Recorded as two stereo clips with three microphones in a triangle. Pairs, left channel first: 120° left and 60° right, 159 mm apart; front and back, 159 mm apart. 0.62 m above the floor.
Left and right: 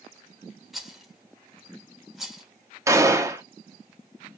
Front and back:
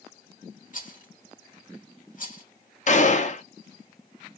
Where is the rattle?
30° left, 0.9 m.